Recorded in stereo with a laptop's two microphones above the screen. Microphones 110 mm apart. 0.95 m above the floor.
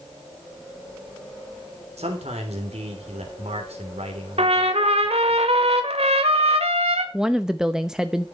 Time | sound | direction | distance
2.0 | a man speaking | 75° right (ahead or behind) | 3 m
4.4 | a trumpet | 70° right (ahead or behind) | 1.9 m
7.1 | a woman speaking | 5° right (ahead or behind) | 0.7 m